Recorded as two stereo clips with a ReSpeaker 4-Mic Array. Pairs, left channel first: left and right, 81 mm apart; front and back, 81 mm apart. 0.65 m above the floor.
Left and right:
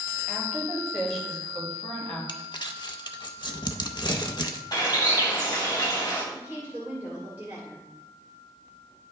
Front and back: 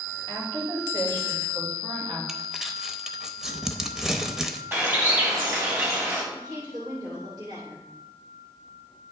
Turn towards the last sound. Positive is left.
turn(degrees=-155)